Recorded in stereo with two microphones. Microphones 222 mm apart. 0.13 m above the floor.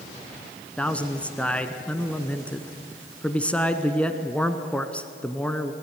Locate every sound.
0.8 s a man speaking: 5° left (ahead or behind), 1.0 m